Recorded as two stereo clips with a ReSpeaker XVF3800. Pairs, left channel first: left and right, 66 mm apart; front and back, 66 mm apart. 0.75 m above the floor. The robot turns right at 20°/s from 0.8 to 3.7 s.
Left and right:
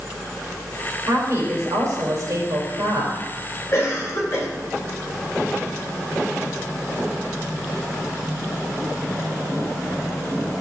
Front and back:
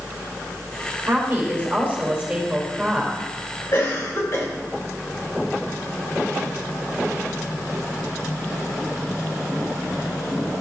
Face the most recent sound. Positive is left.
turn(degrees=40)